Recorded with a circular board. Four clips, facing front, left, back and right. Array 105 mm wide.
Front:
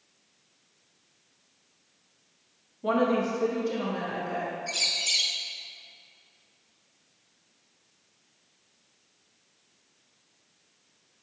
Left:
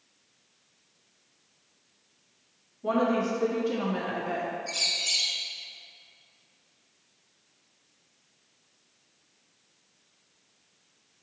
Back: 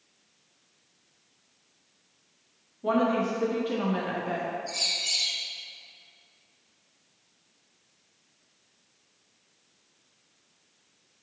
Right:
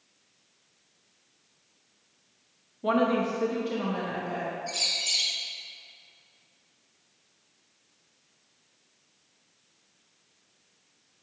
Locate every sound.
2.8 s a woman speaking: 80° right, 0.9 m; by 4.5 s 140° left, 1.1 m
4.7 s a bird: 5° left, 1.2 m